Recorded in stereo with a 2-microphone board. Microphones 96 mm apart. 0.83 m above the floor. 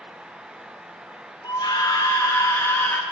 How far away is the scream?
About 1.3 m.